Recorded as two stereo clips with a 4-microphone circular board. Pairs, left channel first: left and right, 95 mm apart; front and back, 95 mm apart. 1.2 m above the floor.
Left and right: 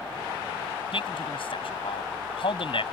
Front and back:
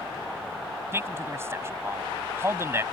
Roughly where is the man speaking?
Behind left.